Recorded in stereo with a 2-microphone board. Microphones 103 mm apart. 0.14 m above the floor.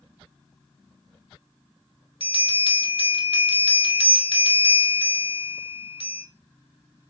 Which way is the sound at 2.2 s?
60° left (ahead or behind).